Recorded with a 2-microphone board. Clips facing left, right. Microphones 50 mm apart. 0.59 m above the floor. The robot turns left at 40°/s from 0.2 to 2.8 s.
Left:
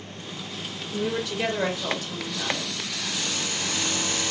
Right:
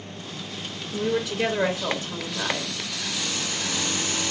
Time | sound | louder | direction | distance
0.9 | a woman speaking | right 2 dB | 10° left (ahead or behind) | 1.1 m